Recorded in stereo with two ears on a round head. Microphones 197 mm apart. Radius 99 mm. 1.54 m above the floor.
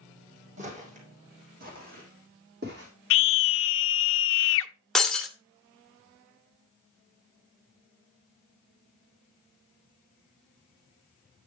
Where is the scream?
60° left (ahead or behind), 0.6 m.